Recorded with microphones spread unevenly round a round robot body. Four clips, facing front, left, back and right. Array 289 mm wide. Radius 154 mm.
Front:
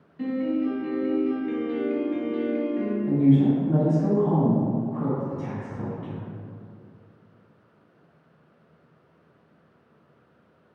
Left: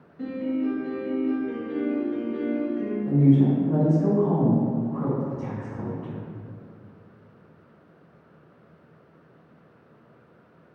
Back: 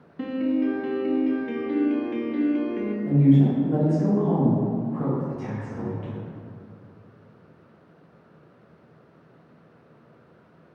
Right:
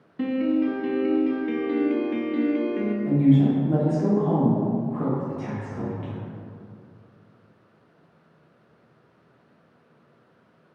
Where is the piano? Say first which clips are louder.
Right 4 dB, back 1 dB; 105° right, 0.6 m.